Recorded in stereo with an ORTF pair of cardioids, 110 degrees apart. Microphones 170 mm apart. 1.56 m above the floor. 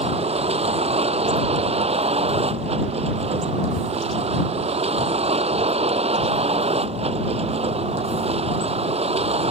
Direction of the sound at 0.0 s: 35° right.